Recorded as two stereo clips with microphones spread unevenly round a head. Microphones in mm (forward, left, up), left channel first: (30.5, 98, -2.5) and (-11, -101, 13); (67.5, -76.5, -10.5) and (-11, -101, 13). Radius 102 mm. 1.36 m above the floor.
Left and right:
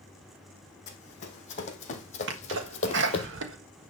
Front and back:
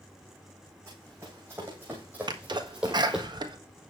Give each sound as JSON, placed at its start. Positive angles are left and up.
{"t": 0.9, "sound": "running footsteps", "azimuth_deg": 135, "distance_m": 3.0}
{"t": 2.3, "sound": "a sneeze", "azimuth_deg": -135, "distance_m": 1.5}